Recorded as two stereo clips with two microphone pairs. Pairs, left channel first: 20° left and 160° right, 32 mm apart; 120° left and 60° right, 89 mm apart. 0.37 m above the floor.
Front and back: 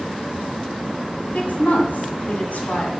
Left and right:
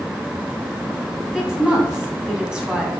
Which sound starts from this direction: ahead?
A woman speaking, at 1.3 s.